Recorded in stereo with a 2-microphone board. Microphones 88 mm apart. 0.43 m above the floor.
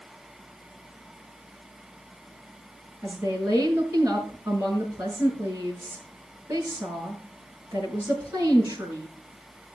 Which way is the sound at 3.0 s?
25° right (ahead or behind).